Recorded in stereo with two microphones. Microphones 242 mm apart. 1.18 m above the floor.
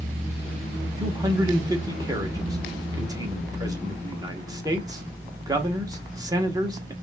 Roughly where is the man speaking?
Centre.